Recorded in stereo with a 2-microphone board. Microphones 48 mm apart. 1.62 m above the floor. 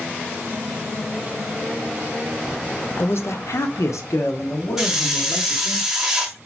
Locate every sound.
3.0 s a man speaking: 50° left (ahead or behind), 0.6 m; by 5.8 s 60° left (ahead or behind), 1.5 m
4.8 s a hiss: 10° right (ahead or behind), 0.8 m